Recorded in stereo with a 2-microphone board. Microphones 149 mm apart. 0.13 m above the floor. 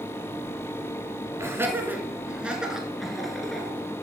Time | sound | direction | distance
1.4 | laughter | 20° right (ahead or behind) | 1.6 m